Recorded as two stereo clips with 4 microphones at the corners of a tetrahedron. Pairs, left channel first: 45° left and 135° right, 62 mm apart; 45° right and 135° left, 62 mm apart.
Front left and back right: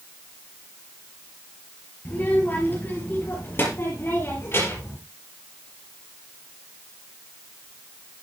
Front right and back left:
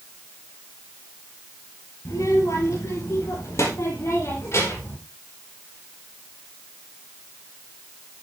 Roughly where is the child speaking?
Ahead.